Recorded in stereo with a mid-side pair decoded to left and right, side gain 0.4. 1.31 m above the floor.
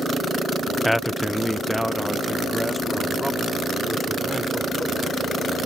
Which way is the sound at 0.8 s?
Straight ahead.